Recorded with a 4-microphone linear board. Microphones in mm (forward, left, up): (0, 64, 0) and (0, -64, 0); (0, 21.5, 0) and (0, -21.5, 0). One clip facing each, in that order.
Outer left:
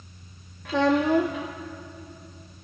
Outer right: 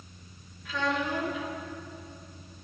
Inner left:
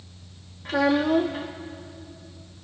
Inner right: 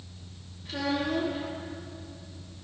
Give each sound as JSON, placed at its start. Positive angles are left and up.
{"t": 0.7, "sound": "a child speaking", "side_deg": 60, "distance_m": 1.2}